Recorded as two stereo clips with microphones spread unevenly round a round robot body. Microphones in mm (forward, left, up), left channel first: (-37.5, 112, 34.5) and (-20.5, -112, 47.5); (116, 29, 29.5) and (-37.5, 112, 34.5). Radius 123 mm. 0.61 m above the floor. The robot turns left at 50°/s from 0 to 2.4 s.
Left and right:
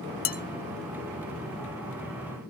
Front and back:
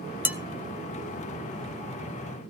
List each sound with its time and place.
0.2 s dishes clattering: 70° left, 0.8 m; by 0.4 s 65° left, 0.8 m